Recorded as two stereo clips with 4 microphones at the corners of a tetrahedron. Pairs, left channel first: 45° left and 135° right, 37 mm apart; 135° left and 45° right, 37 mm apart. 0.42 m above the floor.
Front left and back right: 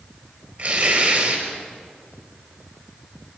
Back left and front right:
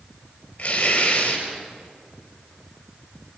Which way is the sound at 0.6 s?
175° right.